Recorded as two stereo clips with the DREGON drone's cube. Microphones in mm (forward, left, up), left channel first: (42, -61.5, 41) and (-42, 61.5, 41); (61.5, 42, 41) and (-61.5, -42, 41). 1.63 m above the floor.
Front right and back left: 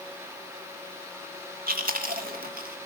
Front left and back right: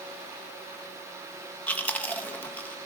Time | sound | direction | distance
1.7 | chewing | 115° left | 3 m